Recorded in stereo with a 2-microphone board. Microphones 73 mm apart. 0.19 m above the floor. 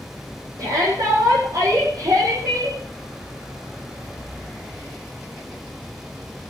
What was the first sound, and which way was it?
A shout, 55° right (ahead or behind).